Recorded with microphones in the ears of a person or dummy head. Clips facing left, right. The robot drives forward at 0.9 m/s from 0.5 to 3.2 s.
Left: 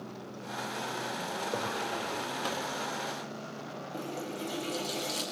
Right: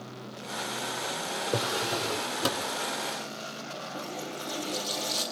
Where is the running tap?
30° left (ahead or behind), 6.5 m.